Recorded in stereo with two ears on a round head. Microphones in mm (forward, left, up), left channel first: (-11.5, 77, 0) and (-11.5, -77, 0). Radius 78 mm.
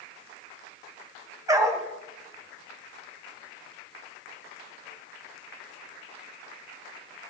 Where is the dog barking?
20° right (ahead or behind), 1.7 m.